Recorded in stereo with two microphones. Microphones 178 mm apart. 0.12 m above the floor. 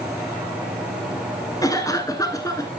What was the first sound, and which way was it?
A cough, 20° left (ahead or behind).